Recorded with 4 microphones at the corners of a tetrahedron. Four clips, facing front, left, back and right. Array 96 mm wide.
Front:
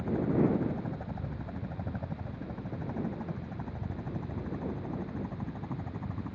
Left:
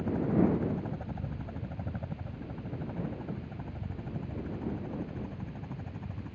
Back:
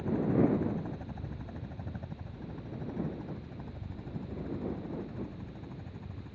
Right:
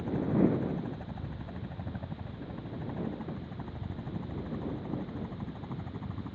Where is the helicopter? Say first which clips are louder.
Even, even; 50° left; by 6.3 s 20° right.